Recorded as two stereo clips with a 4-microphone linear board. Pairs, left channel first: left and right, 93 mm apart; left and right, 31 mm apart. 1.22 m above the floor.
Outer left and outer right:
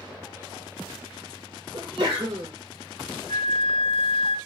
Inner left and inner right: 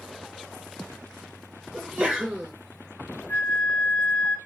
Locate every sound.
1.7 s a sneeze: 55° right (ahead or behind), 1.1 m
3.3 s a flute: 55° left (ahead or behind), 0.6 m